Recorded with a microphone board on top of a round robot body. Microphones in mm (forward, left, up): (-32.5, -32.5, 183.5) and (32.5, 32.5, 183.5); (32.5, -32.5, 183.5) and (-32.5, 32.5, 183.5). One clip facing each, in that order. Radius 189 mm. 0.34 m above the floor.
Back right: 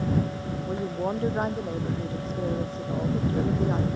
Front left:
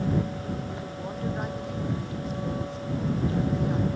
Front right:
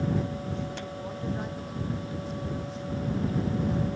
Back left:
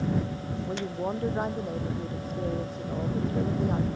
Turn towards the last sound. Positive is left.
turn(degrees=170)